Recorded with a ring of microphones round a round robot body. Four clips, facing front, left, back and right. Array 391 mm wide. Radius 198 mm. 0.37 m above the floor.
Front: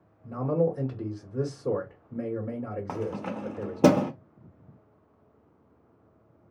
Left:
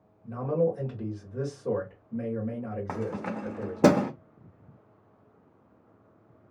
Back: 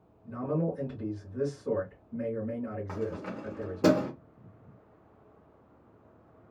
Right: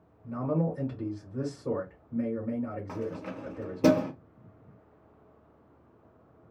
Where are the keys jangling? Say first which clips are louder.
Left 3 dB, front 3 dB; 45° left, 0.6 m.